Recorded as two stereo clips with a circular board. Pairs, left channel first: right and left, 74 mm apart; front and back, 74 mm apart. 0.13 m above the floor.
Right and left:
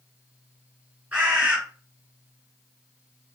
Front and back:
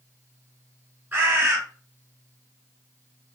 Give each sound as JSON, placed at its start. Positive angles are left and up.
{"t": 1.1, "sound": "a bird", "azimuth_deg": 145, "distance_m": 1.4}